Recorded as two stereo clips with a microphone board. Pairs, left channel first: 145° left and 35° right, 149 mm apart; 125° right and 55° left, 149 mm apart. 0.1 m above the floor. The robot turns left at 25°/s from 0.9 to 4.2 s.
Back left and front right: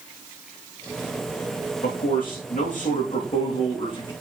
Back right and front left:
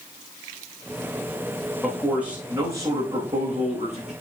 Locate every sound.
1.8 s a man speaking: 145° left, 4.5 m; by 4.1 s 90° left, 4.5 m